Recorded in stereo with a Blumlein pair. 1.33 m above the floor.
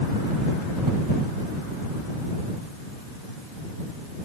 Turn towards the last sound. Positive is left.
No sound to turn to.